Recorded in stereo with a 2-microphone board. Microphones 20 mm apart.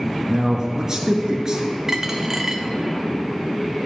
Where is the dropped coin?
20° right (ahead or behind), 0.6 m.